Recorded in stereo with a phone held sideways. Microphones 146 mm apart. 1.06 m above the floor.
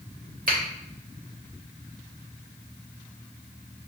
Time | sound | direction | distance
0.5 | a finger snap | 75° right (ahead or behind) | 1.3 m